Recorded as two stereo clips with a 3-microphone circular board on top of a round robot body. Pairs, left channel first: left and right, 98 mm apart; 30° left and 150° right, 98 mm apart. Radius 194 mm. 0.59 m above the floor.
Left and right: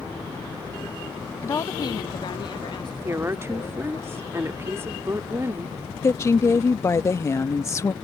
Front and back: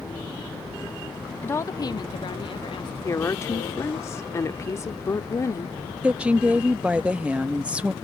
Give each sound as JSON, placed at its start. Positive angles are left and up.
{"t": 1.4, "sound": "a woman speaking", "azimuth_deg": 75}
{"t": 3.0, "sound": "a woman speaking", "azimuth_deg": -30}
{"t": 6.0, "sound": "a woman speaking", "azimuth_deg": 135}